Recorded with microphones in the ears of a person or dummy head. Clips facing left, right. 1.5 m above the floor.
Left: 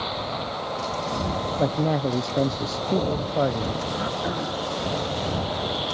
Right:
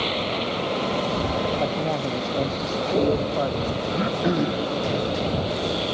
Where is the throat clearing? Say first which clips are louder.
Right 5 dB; 40° right (ahead or behind).